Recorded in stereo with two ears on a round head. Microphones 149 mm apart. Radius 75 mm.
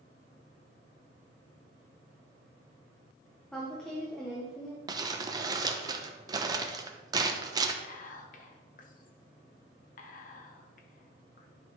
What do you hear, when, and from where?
3.5 s a woman speaking: 5° left (ahead or behind), 1.3 m
4.9 s crumpling: 25° right (ahead or behind), 0.8 m
7.8 s whispering: 50° left (ahead or behind), 1.3 m